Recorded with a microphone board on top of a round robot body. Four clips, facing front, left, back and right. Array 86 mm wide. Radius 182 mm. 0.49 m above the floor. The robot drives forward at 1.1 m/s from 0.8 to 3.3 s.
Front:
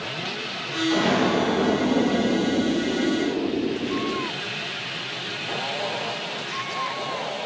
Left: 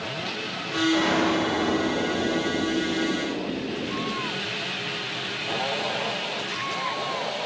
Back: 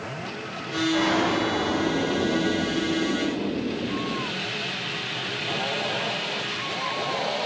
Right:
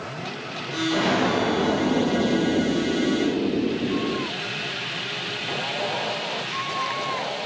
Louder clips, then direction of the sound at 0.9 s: Right 1 dB, front 2 dB; 25° right.